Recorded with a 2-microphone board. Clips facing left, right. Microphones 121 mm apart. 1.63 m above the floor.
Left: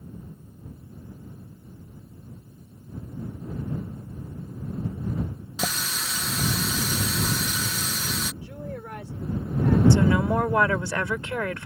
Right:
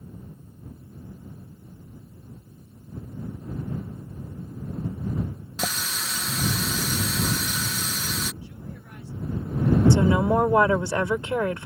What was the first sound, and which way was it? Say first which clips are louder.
A running tap: even; 5° left (ahead or behind).